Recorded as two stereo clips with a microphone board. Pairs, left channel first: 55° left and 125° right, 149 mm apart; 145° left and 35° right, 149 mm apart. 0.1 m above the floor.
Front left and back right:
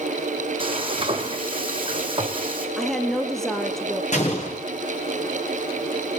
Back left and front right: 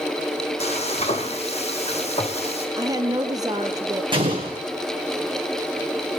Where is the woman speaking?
30° right, 1.2 m.